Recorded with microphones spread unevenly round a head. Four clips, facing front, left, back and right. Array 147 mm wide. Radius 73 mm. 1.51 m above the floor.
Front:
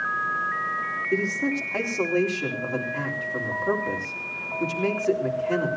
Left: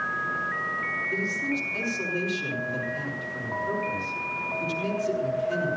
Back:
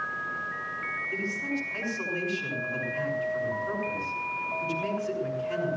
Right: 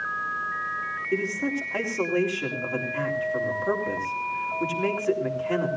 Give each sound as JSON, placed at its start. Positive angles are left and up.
{"t": 1.1, "sound": "a man speaking", "azimuth_deg": -35, "distance_m": 4.0}